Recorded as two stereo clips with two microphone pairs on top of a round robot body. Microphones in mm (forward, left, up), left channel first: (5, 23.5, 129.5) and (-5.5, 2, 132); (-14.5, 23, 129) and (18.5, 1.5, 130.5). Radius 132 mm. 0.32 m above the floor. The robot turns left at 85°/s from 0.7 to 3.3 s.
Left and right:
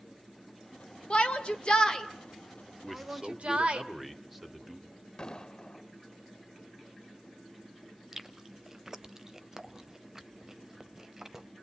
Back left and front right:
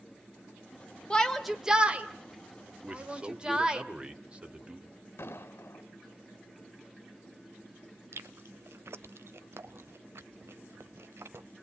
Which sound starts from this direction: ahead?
A man speaking, at 2.8 s.